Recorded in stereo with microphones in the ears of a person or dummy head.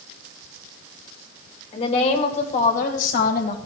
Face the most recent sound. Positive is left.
turn(degrees=55)  # may be behind; listen again after turning